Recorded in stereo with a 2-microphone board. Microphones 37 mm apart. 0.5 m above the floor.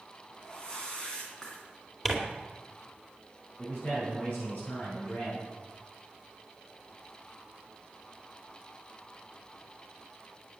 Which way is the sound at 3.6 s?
35° left (ahead or behind).